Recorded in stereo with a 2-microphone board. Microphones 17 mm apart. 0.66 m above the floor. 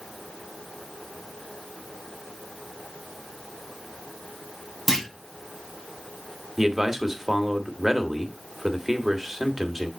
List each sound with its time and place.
4.9 s a clunk: 20° left (ahead or behind), 2.5 m
6.6 s a man speaking: 25° right (ahead or behind), 1.3 m